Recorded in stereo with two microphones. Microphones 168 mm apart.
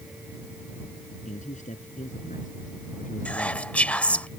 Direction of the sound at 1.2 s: 45° left (ahead or behind).